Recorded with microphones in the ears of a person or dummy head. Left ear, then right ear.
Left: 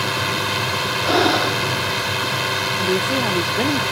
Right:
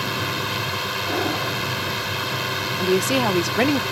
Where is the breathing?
65° left (ahead or behind).